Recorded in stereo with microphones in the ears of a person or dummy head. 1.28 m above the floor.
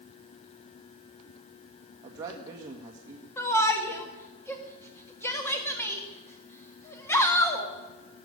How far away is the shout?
About 1.7 m.